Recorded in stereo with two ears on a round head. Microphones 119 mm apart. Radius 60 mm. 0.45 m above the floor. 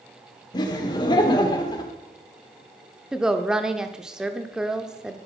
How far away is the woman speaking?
About 0.8 m.